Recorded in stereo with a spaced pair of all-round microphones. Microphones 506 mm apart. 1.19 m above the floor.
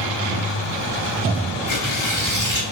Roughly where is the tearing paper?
Left.